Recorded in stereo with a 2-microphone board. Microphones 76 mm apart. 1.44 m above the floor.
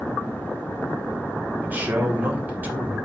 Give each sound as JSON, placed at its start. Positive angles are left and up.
{"t": 1.6, "sound": "a man speaking", "side_deg": -25, "distance_m": 1.4}